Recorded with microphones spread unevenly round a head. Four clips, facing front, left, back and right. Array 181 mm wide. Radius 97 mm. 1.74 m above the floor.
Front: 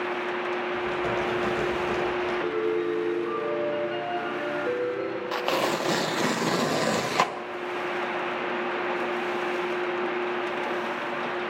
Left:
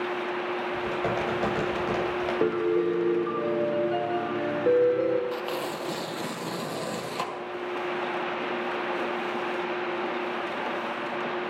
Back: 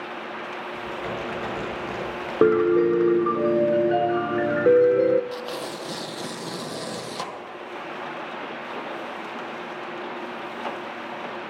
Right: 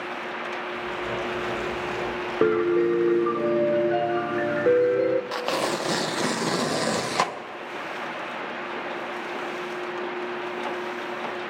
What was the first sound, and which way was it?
Typing on a keyboard, 85° left.